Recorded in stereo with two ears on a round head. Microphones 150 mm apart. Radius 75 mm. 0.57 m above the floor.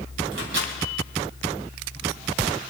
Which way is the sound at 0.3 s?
75° right (ahead or behind).